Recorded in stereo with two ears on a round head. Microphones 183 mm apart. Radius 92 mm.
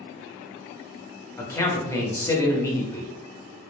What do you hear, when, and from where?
1.4 s a man speaking: 15° left (ahead or behind), 0.6 m